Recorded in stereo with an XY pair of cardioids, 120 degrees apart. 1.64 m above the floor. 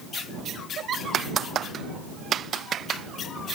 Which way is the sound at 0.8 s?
55° right.